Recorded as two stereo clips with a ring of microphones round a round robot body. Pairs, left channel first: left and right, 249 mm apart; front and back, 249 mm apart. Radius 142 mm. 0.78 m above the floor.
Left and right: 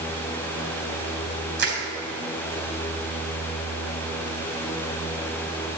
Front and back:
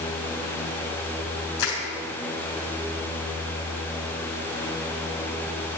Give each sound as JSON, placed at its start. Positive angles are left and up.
{"t": 1.6, "sound": "crushing", "azimuth_deg": -45, "distance_m": 3.5}